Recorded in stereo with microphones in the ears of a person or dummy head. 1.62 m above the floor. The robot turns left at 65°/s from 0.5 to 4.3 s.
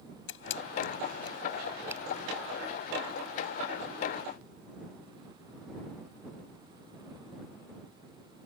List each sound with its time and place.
0.3 s a camera shutter: 80° left; by 2.0 s 20° right (ahead or behind)